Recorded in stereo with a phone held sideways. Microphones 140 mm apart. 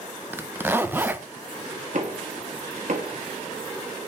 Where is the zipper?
15° right (ahead or behind), 0.6 m.